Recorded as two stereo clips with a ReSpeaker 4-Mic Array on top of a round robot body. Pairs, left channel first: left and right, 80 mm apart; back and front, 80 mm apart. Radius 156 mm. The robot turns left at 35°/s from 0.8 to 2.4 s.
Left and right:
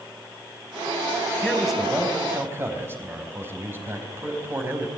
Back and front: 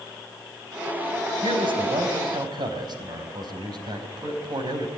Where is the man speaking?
5° left, 5 m; by 4.9 s 30° right, 5 m.